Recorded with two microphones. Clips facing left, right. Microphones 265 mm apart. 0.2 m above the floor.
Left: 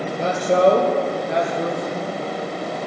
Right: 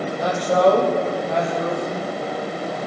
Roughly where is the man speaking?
Left.